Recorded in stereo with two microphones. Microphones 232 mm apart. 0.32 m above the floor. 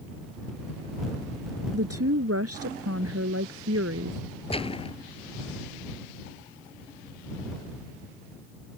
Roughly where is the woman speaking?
Right.